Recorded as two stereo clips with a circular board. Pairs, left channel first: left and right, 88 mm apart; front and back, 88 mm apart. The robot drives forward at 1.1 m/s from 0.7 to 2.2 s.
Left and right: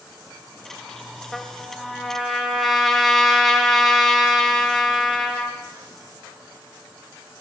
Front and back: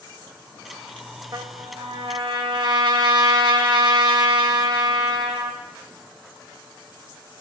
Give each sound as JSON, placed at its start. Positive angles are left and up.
{"t": 1.3, "sound": "a trumpet", "azimuth_deg": 175, "distance_m": 0.7}